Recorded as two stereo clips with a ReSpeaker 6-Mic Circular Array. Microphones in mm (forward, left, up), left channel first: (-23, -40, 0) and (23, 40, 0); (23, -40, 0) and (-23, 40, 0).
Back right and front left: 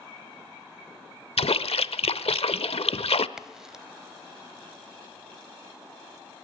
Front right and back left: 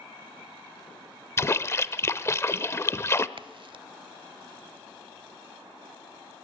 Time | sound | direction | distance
1.4 | a splash | 125° right | 0.7 m
3.4 | a crack | 145° left | 0.7 m